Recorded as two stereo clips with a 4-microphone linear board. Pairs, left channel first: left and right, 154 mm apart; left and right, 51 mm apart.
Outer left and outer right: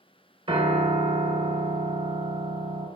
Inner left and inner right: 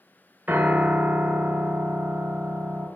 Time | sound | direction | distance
0.5 | a piano | 35° right (ahead or behind) | 0.6 m